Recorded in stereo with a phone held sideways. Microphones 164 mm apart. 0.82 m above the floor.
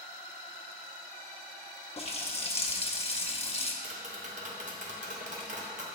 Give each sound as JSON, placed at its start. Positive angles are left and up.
{"t": 2.0, "sound": "a running tap", "side_deg": 40, "distance_m": 0.6}
{"t": 3.8, "sound": "tapping", "side_deg": -50, "distance_m": 0.8}